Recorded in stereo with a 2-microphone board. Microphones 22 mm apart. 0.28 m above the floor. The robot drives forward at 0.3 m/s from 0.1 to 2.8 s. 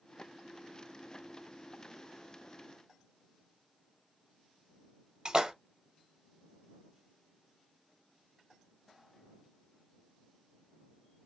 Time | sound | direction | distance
5.2 | a splash | 35° right (ahead or behind) | 0.6 m